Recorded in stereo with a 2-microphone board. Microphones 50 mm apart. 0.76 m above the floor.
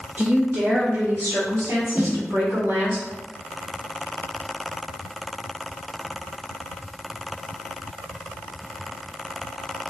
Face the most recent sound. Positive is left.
turn(degrees=-40)  # may be behind; listen again after turning